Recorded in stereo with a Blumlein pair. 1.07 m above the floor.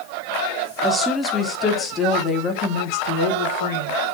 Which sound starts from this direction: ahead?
A woman speaking, at 0.8 s.